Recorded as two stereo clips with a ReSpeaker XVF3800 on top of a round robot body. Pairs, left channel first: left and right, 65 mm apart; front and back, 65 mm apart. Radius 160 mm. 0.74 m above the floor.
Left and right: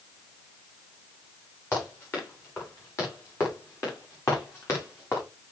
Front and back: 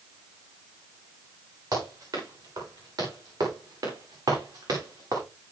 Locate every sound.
1.7 s running footsteps: 145° left, 9 m; by 5.2 s 140° left, 6 m